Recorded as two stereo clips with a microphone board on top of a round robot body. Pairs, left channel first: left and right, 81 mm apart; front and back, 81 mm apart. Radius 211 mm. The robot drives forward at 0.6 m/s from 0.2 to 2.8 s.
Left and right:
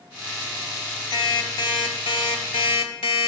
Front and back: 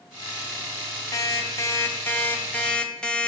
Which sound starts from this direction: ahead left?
An alarm clock, at 1.1 s.